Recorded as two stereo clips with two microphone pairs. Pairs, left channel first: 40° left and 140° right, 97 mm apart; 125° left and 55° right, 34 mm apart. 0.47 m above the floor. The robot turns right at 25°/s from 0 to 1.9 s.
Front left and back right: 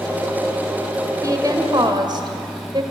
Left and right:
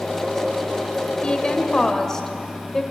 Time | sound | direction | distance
1.2 | a woman speaking | 175° left | 2.5 m